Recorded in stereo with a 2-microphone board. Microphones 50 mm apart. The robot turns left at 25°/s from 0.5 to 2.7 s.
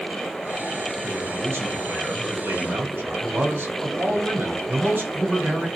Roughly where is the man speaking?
Ahead right.